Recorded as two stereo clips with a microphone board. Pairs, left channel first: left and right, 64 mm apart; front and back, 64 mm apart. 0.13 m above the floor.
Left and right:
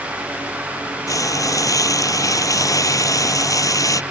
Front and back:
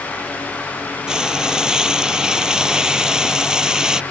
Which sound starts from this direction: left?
Frying, at 1.1 s.